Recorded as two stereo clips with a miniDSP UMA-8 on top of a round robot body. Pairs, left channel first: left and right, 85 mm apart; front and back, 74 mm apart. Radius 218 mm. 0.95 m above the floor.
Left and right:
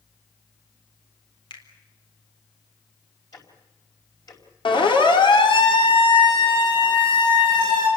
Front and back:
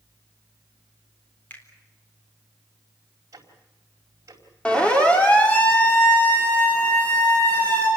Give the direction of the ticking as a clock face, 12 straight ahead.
8 o'clock.